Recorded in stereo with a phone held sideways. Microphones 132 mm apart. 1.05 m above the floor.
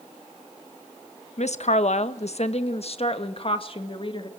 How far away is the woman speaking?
About 1.2 m.